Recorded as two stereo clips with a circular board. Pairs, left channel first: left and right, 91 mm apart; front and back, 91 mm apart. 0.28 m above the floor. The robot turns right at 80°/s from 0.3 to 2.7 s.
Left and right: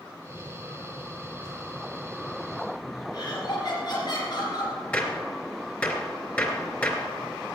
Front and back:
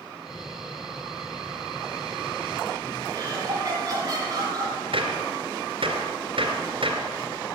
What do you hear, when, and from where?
3.1 s laughter: 130° left, 3.5 m
4.9 s a gunshot: 165° left, 2.5 m